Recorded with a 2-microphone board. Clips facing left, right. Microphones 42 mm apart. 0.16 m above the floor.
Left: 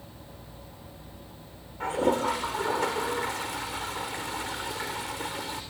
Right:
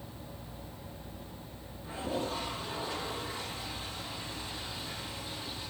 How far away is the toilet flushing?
About 5 m.